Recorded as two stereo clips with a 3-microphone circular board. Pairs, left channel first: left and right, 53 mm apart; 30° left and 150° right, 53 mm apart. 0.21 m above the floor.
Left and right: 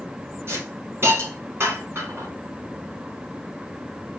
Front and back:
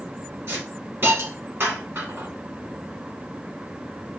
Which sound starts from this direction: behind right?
A hiss, at 0.5 s.